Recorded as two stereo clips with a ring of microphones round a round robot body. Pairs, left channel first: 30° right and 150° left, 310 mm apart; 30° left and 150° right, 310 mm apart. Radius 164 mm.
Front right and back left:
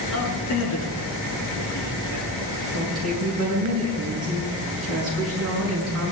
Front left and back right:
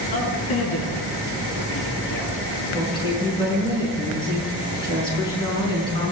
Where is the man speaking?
20° left, 7 m; by 2.3 s straight ahead, 7.5 m.